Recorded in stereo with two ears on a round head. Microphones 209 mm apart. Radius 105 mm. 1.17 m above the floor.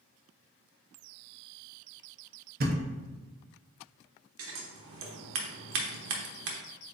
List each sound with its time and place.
2.6 s a thud: 40° right (ahead or behind), 0.7 m
4.4 s scissors: 55° right (ahead or behind), 0.8 m